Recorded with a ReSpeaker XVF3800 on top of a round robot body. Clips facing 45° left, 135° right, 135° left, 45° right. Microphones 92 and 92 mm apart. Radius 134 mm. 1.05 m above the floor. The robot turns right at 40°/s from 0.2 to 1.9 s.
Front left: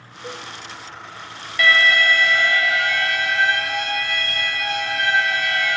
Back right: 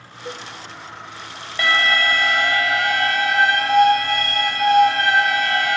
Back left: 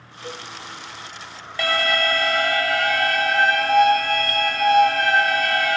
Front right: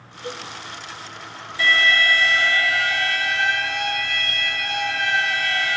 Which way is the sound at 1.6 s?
165° left.